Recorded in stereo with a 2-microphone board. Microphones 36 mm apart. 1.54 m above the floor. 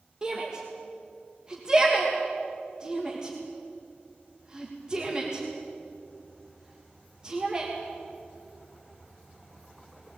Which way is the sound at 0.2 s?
20° right (ahead or behind).